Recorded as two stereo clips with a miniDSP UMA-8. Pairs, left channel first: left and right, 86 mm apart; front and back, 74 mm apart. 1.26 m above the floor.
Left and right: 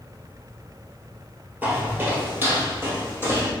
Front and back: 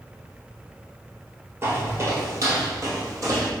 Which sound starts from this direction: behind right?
Footsteps, at 1.6 s.